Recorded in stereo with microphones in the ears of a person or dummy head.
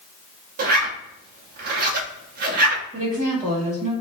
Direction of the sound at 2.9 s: 35° right (ahead or behind).